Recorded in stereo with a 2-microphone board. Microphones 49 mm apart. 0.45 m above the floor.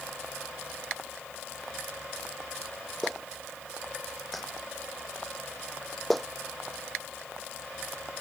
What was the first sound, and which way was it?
A clap, centre (ahead or behind).